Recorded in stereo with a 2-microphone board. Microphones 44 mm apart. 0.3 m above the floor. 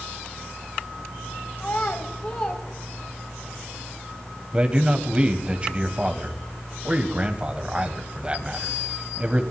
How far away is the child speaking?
About 1.3 m.